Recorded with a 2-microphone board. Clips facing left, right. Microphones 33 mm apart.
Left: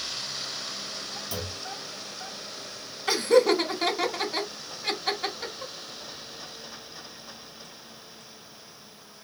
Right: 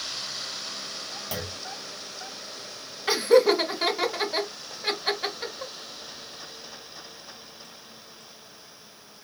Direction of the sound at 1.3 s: 70° right (ahead or behind).